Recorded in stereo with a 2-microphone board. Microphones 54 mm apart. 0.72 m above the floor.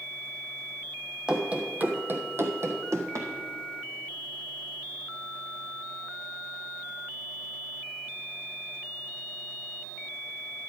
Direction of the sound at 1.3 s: 15° right (ahead or behind).